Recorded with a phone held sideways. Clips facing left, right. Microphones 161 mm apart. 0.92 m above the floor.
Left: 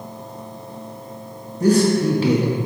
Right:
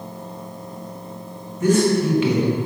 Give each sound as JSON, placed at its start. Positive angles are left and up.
{"t": 1.6, "sound": "a man speaking", "side_deg": 35, "distance_m": 0.9}